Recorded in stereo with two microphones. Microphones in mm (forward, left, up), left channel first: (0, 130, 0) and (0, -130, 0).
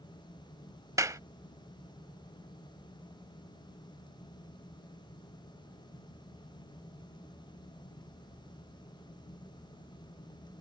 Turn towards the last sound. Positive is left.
turn(degrees=-15)  # may be behind; listen again after turning